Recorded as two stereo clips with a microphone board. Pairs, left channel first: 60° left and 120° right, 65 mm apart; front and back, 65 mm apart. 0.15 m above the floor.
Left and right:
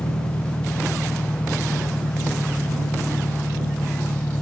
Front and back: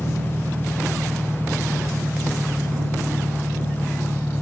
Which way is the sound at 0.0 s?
110° left.